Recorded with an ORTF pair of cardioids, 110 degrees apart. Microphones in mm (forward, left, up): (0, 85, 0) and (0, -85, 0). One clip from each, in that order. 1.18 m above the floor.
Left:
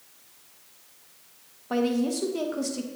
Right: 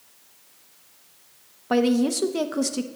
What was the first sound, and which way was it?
A woman speaking, 35° right.